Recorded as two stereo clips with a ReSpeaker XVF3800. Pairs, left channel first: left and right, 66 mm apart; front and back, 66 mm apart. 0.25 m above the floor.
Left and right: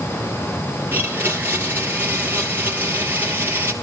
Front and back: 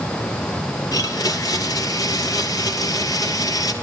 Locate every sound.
0.9 s a blender: 30° right, 2.5 m